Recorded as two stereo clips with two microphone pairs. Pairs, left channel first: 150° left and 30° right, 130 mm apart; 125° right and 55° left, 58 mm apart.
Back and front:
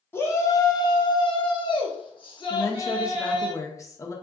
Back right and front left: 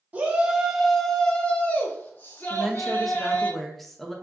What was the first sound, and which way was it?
A shout, 95° left.